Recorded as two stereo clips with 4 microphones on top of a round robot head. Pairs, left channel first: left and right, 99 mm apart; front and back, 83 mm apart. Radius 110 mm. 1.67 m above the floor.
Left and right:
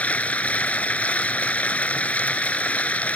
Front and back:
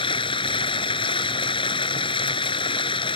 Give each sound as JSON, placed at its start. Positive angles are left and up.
{"t": 0.0, "sound": "running water", "azimuth_deg": 15}